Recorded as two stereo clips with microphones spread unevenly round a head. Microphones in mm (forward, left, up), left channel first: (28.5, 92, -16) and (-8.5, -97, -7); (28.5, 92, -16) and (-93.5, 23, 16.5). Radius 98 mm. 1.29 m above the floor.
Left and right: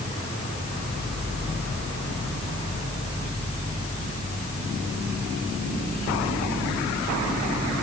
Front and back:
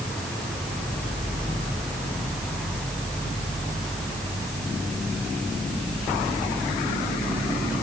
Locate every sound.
Only background noise.